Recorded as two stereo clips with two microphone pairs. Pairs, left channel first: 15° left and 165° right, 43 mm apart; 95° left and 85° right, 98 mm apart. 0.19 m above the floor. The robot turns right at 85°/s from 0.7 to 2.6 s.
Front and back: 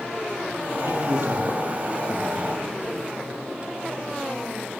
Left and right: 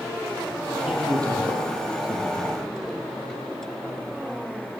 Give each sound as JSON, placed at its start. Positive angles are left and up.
{"t": 0.8, "sound": "a man speaking", "azimuth_deg": -170, "distance_m": 6.5}